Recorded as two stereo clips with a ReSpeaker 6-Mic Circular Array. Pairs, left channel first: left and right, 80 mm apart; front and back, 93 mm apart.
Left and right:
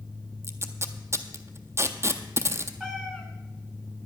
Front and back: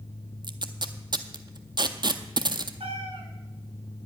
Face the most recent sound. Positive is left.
turn(degrees=-170)